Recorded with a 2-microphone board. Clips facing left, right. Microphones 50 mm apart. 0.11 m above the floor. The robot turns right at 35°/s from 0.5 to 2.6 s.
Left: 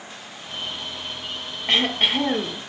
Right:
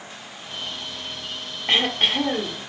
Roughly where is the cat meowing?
No cat meowing in this recording.